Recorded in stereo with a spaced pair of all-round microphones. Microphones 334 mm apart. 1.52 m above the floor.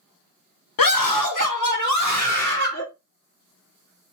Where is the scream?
80° left, 0.7 m; by 2.9 s 40° left (ahead or behind), 1.5 m.